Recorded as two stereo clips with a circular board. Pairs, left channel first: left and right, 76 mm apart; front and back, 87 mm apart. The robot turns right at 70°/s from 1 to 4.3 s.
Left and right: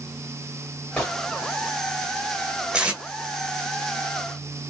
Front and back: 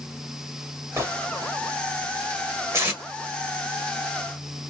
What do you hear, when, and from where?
1.0 s a gunshot: 155° left, 1.4 m; by 1.2 s 170° left, 1.4 m
2.7 s tape being pulled: 150° right, 1.1 m; by 3.0 s 135° right, 1.1 m